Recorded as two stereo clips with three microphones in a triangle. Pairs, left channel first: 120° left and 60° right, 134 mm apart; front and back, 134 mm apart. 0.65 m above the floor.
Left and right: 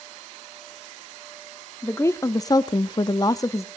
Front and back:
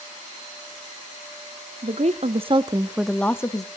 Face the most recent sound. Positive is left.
turn(degrees=55)